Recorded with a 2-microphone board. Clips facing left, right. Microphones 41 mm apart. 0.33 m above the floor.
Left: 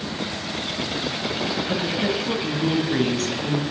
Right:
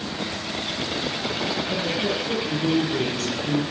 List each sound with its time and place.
1.7 s a woman speaking: 55° left (ahead or behind), 2.5 m